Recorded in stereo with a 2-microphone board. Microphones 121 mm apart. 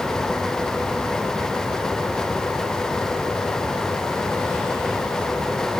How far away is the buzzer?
No buzzer in this recording.